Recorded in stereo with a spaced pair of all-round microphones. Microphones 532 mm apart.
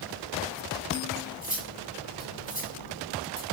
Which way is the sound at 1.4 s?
15° left (ahead or behind).